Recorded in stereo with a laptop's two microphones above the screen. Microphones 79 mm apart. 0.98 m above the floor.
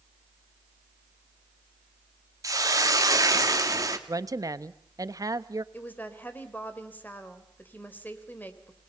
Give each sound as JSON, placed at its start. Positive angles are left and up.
{"t": 2.4, "sound": "a hiss", "side_deg": -45, "distance_m": 2.5}
{"t": 4.1, "sound": "a woman speaking", "side_deg": -50, "distance_m": 1.2}
{"t": 5.7, "sound": "a woman speaking", "side_deg": 20, "distance_m": 3.5}